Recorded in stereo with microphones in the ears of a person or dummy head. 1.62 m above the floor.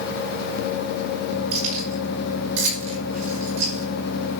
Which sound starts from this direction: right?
Keys jangling, at 1.5 s.